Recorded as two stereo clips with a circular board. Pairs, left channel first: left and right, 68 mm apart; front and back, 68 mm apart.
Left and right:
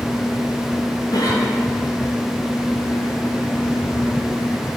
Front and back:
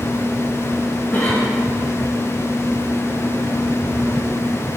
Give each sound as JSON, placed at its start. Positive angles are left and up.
{"t": 1.1, "sound": "a cough", "azimuth_deg": 65, "distance_m": 4.0}